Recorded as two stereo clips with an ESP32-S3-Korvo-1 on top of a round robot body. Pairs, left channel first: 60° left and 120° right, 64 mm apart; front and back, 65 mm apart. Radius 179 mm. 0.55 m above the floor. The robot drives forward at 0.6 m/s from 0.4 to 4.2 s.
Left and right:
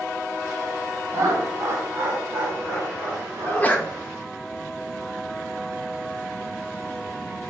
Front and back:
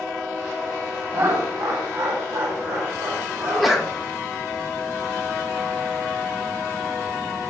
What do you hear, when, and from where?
1.1 s laughter: 160° right, 1.1 m; by 3.9 s 175° right, 2.5 m
3.4 s a sneeze: 60° left, 0.7 m; by 3.9 s 115° left, 0.7 m